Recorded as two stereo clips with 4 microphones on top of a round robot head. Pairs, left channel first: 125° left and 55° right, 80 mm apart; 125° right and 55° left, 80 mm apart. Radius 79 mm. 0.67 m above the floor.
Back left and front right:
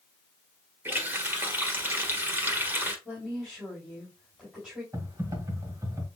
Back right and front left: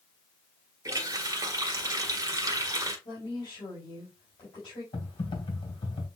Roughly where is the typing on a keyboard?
Behind right.